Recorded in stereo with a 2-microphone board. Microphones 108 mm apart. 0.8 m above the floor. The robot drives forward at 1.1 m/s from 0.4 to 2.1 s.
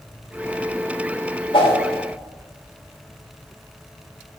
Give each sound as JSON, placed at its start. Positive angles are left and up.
{"t": 1.5, "sound": "a whoosh", "side_deg": 55, "distance_m": 3.0}